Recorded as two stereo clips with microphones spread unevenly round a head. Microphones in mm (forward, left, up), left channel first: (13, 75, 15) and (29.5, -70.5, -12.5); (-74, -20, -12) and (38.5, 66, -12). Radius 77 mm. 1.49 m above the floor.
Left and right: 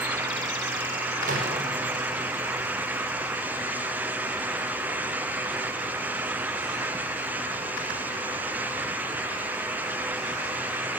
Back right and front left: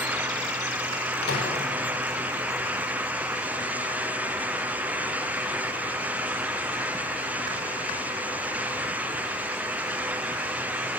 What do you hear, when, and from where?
1.2 s a microwave: 125° right, 5 m